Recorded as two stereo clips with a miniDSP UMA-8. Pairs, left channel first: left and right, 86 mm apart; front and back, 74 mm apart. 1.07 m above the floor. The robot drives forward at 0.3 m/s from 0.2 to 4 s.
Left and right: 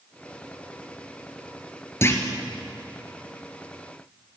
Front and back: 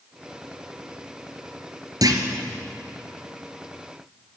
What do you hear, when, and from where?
2.0 s a clunk: 150° left, 2.5 m